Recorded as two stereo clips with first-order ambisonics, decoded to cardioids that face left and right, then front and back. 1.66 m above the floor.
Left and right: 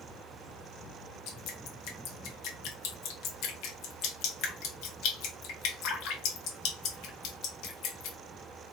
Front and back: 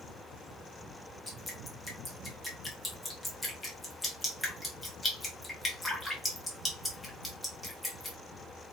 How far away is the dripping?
About 1.1 m.